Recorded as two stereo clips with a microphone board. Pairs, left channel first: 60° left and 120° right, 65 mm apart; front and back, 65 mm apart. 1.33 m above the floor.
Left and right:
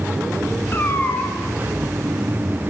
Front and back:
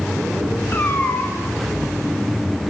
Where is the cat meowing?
30° left, 0.7 m.